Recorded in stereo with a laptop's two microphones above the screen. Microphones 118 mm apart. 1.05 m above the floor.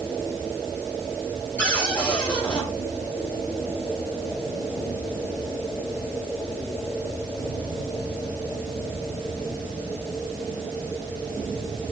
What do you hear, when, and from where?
1.6 s a cupboard door: 10° left (ahead or behind), 2.5 m